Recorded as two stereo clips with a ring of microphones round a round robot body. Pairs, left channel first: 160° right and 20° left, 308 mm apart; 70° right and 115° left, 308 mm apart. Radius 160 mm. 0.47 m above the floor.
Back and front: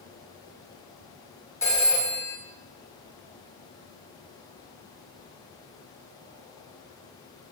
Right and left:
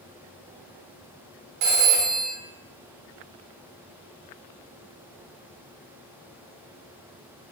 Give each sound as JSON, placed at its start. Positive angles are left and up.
{"t": 1.6, "sound": "a phone ringing", "azimuth_deg": 120, "distance_m": 0.8}